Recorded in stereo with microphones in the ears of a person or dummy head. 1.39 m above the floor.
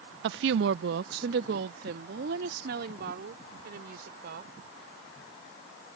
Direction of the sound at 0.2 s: 65° right (ahead or behind).